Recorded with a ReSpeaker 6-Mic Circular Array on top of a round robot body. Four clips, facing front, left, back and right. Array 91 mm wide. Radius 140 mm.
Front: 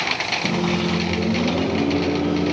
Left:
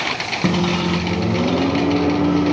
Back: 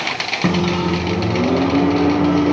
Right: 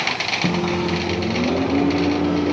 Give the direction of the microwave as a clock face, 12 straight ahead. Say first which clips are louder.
Left 2 dB, back 5 dB; 6 o'clock.